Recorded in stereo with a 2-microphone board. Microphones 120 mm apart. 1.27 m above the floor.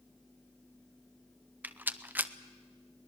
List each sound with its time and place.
1.6 s a rattle: 15° right (ahead or behind), 0.7 m